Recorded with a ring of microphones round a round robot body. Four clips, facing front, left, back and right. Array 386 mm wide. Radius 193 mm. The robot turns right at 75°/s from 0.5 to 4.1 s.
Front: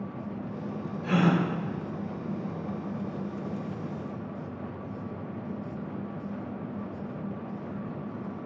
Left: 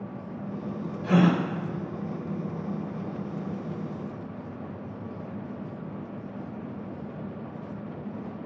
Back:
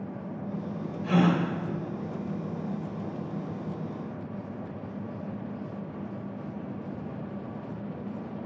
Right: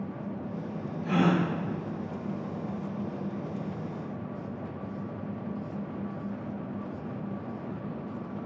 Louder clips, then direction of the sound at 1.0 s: Left 3 dB, back 1 dB; 70° left.